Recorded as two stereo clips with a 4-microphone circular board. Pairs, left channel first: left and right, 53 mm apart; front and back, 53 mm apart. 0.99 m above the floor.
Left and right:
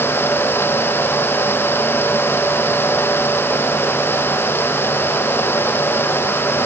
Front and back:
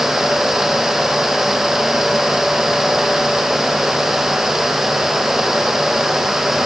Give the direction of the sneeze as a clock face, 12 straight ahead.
I don't hear a sneeze.